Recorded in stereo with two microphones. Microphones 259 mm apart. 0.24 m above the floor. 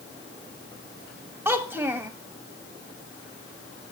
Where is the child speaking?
10° right (ahead or behind), 0.6 m.